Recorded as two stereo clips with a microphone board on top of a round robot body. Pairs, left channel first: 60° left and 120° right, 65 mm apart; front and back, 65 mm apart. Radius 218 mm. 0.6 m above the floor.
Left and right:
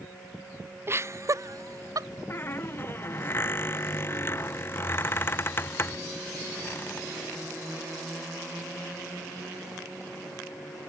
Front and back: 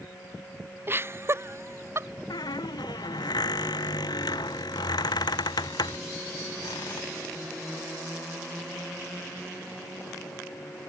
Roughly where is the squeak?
Ahead.